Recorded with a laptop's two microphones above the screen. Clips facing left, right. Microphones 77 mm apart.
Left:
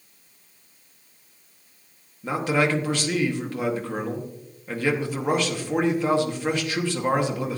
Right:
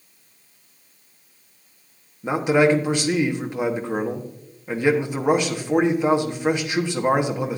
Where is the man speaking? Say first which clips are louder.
Right 5 dB; 15° right (ahead or behind), 1.1 m.